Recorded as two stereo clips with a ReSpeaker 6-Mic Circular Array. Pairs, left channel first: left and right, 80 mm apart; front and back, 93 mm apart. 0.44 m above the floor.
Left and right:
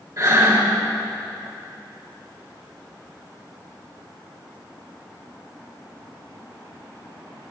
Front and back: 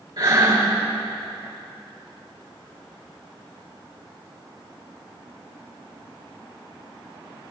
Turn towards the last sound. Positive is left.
turn(degrees=-145)